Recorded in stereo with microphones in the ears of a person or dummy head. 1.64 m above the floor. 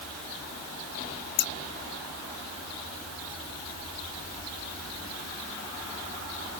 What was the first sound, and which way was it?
Scissors, 55° left (ahead or behind).